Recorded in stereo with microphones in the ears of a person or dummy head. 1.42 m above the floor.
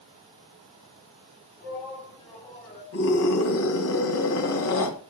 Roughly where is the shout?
Left.